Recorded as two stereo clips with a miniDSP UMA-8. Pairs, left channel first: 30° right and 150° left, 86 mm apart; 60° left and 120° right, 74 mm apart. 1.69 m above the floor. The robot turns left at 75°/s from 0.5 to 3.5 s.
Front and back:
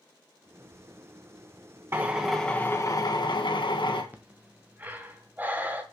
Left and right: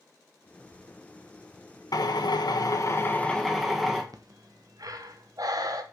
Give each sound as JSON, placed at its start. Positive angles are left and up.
{"t": 1.9, "sound": "a drill", "azimuth_deg": 90, "distance_m": 1.5}
{"t": 4.1, "sound": "breathing", "azimuth_deg": -145, "distance_m": 1.1}